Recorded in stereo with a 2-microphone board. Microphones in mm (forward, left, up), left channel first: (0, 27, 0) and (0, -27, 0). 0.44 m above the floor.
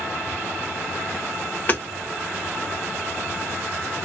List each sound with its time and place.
1.7 s hammering: 35° left (ahead or behind), 1.4 m